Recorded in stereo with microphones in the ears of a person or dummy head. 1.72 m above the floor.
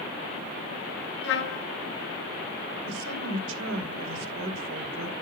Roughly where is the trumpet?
Left.